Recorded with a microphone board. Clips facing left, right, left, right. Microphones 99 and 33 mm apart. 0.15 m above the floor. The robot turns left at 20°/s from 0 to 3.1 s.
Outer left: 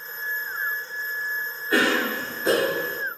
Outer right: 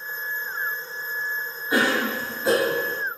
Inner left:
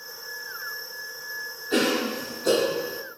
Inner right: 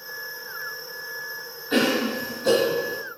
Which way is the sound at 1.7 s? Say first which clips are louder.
Even, inner right 2 dB; 15° right (ahead or behind).